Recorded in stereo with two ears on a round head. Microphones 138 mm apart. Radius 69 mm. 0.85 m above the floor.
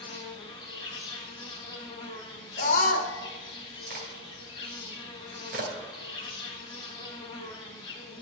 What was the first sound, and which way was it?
An insect, 30° left (ahead or behind).